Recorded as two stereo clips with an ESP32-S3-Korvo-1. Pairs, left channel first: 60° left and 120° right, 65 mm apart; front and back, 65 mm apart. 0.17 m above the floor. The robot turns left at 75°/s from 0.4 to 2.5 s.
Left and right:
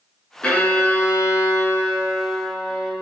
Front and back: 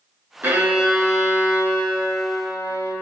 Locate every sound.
0.4 s a violin: 135° left, 0.6 m; by 2.9 s 20° right, 0.6 m